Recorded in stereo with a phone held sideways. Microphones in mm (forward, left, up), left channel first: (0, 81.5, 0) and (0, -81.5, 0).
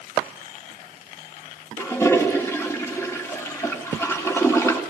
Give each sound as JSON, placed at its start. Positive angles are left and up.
{"t": 1.8, "sound": "a toilet flushing", "side_deg": 15, "distance_m": 3.0}